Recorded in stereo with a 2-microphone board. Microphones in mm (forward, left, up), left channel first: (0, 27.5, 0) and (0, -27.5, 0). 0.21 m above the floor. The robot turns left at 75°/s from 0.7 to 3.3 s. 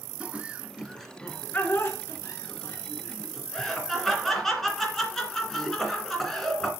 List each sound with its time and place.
0.2 s laughter: 20° right (ahead or behind), 2 m; by 6.7 s 10° left (ahead or behind), 2 m